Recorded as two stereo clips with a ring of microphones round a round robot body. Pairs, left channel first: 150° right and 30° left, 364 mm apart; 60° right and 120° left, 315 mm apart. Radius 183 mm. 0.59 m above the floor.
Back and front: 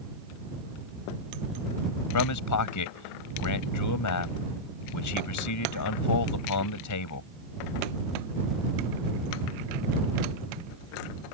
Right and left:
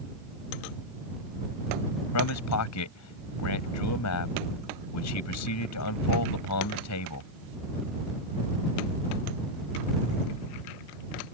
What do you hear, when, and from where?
2.1 s a man speaking: 105° right